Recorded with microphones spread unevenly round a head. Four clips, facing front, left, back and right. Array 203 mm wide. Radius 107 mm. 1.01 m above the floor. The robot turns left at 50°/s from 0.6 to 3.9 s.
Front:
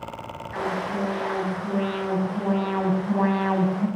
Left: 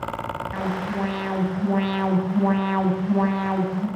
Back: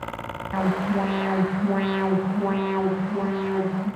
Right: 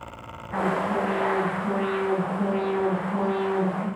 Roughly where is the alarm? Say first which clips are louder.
Right 5 dB, back 3 dB; behind.